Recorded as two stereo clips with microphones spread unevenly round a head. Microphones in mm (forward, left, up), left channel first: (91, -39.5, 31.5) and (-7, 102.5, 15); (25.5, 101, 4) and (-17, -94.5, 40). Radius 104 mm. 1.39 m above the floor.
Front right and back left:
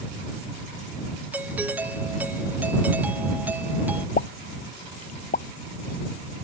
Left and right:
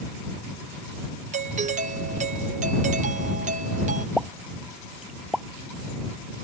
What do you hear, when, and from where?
1.3 s a doorbell: 160° right
4.2 s a pop: 15° right